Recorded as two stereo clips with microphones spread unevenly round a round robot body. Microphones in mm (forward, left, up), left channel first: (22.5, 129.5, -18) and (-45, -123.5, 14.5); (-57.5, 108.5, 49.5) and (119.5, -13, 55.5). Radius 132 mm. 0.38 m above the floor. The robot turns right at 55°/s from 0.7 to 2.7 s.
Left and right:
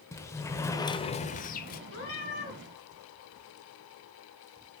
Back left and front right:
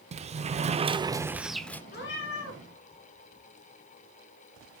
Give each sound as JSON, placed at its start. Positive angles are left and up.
{"t": 0.1, "sound": "a sliding door", "azimuth_deg": 10, "distance_m": 0.6}
{"t": 1.9, "sound": "a cat meowing", "azimuth_deg": 100, "distance_m": 2.5}